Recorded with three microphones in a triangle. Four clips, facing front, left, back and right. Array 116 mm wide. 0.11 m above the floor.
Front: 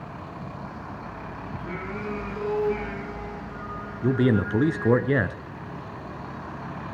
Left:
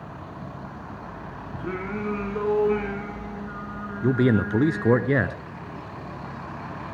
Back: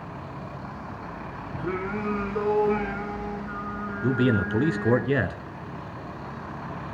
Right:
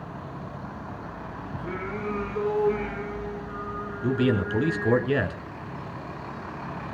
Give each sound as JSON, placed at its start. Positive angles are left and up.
{"t": 1.6, "sound": "singing", "azimuth_deg": 140, "distance_m": 7.0}
{"t": 4.0, "sound": "a man speaking", "azimuth_deg": 65, "distance_m": 1.2}